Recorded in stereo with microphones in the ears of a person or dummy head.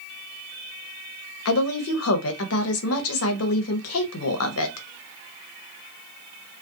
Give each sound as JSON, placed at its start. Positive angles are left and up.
{"t": 1.4, "sound": "a woman speaking", "side_deg": 75, "distance_m": 0.6}